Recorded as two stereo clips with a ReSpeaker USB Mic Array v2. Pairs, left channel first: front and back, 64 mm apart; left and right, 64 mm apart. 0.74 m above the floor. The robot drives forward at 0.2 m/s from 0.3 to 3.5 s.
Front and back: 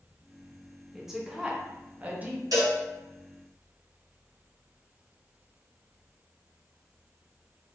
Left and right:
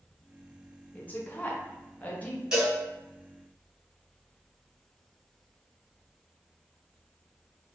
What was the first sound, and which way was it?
A woman speaking, 100° left.